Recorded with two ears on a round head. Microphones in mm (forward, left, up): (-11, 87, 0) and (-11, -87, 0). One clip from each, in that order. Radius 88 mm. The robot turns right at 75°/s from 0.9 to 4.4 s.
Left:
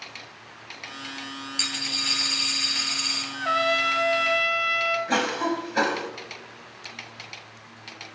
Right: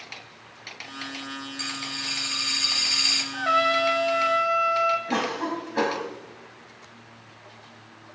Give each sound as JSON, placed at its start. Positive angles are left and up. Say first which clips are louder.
{"t": 1.6, "sound": "a dropped coin", "louder": "left 6 dB", "azimuth_deg": 100, "distance_m": 3.0}
{"t": 3.3, "sound": "a trumpet", "louder": "left 2 dB", "azimuth_deg": -15, "distance_m": 1.4}
{"t": 5.1, "sound": "a cough", "louder": "left 2 dB", "side_deg": 80, "distance_m": 2.5}